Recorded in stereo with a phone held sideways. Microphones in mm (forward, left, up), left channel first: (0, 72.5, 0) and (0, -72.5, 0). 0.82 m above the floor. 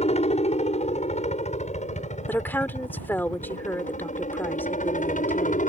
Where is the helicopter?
50° left (ahead or behind); by 5.7 s 60° left (ahead or behind).